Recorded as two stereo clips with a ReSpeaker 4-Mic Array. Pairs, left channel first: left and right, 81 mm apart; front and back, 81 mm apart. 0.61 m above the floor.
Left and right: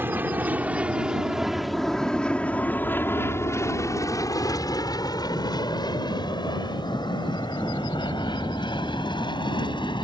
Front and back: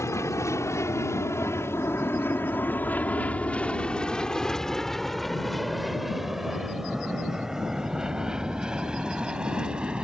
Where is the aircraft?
35° right; by 10.1 s 100° left.